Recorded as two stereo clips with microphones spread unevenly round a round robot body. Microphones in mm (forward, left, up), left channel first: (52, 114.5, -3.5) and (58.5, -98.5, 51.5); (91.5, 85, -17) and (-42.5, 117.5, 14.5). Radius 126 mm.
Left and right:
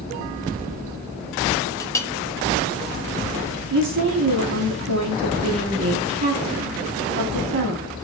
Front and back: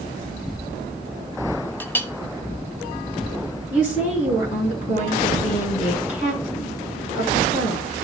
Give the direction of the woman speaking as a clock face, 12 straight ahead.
2 o'clock.